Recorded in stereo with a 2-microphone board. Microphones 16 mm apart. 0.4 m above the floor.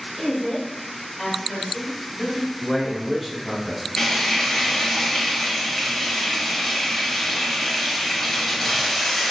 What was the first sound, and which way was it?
A woman speaking, 20° left (ahead or behind).